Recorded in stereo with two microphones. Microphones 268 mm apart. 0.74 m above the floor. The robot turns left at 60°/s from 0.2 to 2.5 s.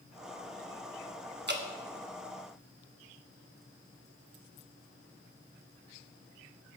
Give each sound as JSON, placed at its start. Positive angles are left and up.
{"t": 1.5, "sound": "dripping", "side_deg": -40, "distance_m": 1.0}